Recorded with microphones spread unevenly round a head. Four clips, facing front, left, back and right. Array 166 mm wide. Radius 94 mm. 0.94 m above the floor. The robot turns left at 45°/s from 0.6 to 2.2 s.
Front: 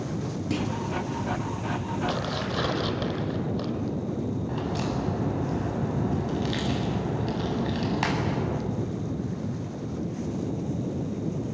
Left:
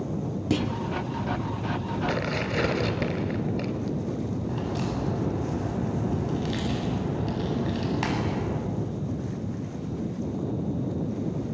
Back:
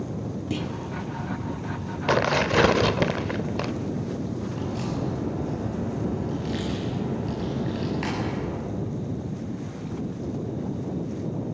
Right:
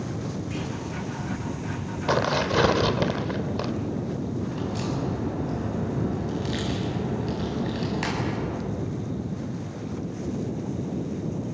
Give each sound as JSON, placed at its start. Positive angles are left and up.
{"t": 0.5, "sound": "a clunk", "azimuth_deg": 100, "distance_m": 2.0}
{"t": 2.1, "sound": "tearing paper", "azimuth_deg": -150, "distance_m": 0.9}
{"t": 4.5, "sound": "a crack", "azimuth_deg": 10, "distance_m": 8.0}